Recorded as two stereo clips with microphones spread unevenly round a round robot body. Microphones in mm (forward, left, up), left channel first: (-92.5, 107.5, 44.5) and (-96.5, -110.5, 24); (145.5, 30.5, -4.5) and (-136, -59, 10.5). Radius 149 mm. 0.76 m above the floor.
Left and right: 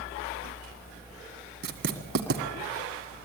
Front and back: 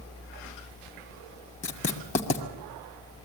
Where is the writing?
45° right, 1.7 m.